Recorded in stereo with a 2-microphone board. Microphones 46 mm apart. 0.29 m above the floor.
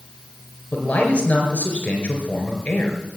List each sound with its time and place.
0.7 s a man speaking: 35° left (ahead or behind), 4 m